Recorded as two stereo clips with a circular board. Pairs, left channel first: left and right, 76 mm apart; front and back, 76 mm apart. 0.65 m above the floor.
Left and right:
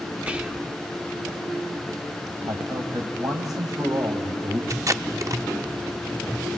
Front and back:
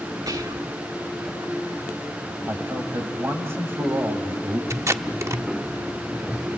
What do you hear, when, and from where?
0.3 s whispering: 160° right, 1.5 m
2.5 s a man speaking: 125° right, 3.5 m
4.7 s tape being pulled: 130° right, 0.7 m